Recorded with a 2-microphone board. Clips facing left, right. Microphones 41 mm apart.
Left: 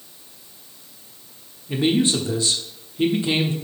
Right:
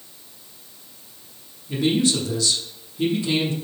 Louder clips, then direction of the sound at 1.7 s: Left 1 dB; 30° left (ahead or behind).